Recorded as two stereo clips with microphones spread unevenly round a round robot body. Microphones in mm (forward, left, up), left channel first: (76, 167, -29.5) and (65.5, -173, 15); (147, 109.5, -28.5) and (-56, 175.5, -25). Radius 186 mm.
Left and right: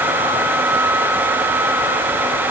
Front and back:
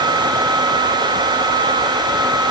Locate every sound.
Only background noise.